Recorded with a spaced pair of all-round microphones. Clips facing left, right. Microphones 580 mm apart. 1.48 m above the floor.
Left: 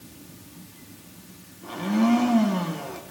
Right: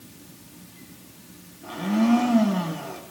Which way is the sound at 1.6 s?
5° right (ahead or behind).